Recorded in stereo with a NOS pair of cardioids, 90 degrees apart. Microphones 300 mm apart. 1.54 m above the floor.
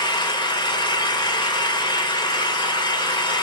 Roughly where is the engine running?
Ahead.